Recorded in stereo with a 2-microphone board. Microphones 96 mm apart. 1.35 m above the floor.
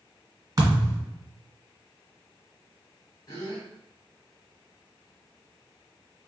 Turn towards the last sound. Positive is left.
turn(degrees=40)  # may be behind; listen again after turning